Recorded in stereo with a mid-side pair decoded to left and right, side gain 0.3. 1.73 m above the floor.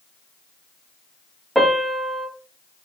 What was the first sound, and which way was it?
A piano, 5° right.